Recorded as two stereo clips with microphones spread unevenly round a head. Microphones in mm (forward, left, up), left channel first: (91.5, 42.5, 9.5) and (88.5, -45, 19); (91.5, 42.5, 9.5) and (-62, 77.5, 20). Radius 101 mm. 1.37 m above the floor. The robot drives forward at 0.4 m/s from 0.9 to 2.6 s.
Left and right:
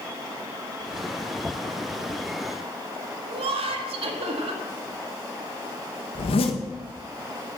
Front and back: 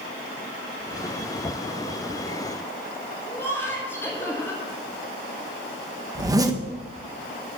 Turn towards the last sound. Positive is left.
turn(degrees=100)